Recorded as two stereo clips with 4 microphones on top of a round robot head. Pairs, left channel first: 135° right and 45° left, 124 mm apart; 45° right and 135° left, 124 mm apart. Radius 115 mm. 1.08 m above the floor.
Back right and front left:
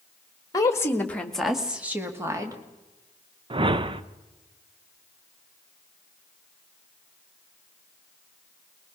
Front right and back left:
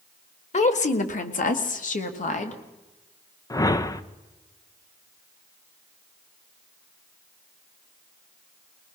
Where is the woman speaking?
75° right, 2 m; by 2.6 s 20° right, 2.5 m.